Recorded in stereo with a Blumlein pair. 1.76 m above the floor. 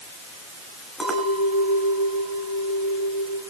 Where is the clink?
Straight ahead, 6.5 m.